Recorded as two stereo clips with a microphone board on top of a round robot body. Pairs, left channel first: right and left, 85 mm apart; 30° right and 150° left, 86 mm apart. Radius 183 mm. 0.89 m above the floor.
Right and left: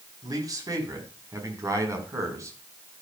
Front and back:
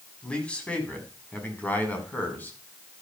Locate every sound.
0.2 s a man speaking: 50° left, 4 m; by 2.6 s 40° left, 5 m